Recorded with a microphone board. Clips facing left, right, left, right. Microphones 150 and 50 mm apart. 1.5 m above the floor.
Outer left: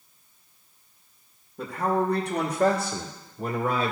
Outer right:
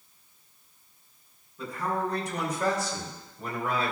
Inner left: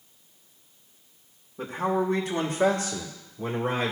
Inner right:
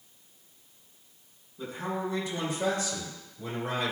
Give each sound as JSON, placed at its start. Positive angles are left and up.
{"t": 1.6, "sound": "a man speaking", "side_deg": 80, "distance_m": 1.7}